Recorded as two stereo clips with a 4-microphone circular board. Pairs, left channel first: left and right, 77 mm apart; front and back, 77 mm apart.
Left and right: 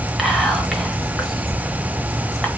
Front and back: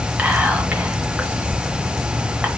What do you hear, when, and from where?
0.2 s whispering: 175° left, 0.9 m